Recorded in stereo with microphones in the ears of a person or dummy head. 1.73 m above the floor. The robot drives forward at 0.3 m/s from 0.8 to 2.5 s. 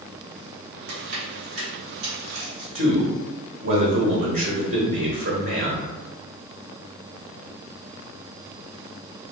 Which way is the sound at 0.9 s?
55° right (ahead or behind).